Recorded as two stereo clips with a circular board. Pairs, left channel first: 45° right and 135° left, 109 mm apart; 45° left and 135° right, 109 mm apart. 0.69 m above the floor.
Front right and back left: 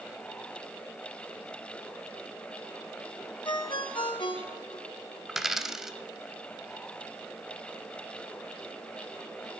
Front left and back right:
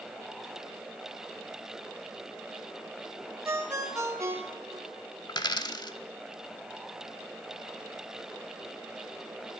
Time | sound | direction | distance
3.5 | a ringtone | 75° right | 1.0 m
5.3 | a dropped coin | 50° left | 0.6 m